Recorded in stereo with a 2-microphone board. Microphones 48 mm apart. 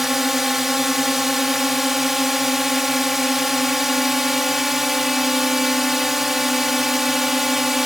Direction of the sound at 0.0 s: 5° right (ahead or behind).